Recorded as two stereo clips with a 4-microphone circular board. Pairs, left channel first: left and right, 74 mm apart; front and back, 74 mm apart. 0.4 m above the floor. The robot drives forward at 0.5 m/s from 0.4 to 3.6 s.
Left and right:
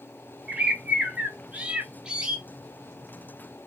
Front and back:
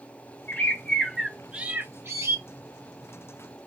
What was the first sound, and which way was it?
A bird, 30° right.